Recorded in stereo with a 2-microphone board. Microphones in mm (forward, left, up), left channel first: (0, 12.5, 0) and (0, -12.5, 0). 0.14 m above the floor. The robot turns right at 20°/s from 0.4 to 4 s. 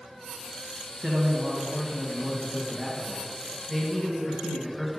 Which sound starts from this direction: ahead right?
A man speaking, at 1.0 s.